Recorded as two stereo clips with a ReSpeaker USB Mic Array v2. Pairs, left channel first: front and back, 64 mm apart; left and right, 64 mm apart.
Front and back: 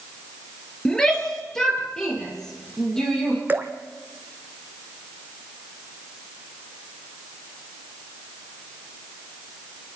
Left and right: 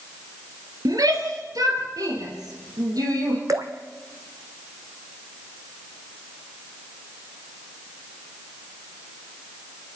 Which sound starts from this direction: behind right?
Dripping, at 3.5 s.